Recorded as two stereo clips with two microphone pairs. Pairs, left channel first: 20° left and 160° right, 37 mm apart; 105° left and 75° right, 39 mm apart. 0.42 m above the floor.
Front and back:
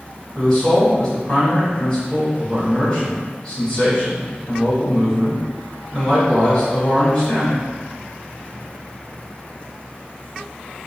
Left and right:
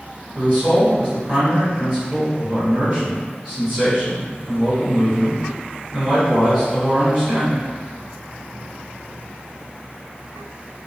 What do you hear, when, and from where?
0.3 s a man speaking: 40° right, 2.0 m